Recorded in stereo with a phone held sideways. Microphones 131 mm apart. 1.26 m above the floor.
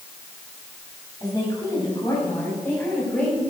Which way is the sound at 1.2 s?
30° left (ahead or behind).